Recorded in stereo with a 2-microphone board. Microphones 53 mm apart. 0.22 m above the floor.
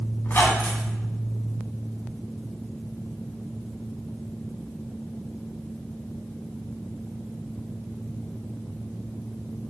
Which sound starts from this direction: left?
A squeak, at 0.2 s.